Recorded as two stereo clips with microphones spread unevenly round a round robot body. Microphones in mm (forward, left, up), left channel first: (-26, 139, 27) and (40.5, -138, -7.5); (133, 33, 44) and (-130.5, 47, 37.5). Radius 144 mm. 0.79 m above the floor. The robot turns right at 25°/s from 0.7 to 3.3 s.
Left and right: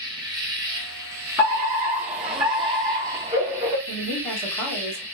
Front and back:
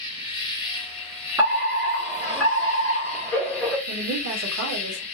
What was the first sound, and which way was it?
An insect, 50° right.